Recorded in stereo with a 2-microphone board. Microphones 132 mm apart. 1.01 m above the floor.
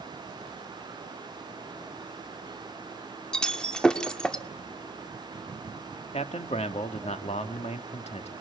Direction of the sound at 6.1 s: 55° left (ahead or behind).